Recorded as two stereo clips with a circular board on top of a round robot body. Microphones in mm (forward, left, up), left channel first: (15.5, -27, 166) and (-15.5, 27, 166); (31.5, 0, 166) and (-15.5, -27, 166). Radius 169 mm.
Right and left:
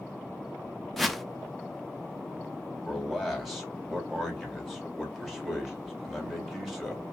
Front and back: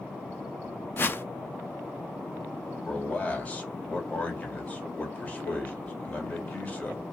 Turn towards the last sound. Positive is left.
turn(degrees=35)